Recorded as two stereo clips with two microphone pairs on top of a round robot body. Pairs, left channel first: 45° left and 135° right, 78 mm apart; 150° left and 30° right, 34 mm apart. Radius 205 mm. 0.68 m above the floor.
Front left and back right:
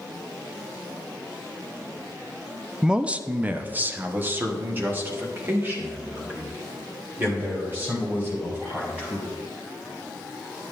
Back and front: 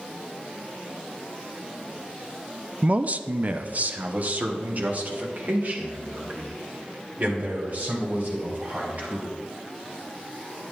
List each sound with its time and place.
2.8 s a man speaking: 70° right, 0.5 m